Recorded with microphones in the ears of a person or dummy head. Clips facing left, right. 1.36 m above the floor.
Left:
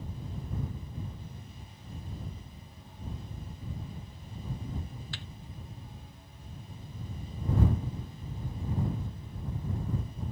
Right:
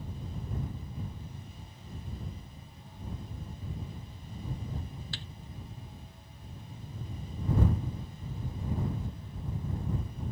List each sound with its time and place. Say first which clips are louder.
5.1 s a thud: even; 30° right (ahead or behind)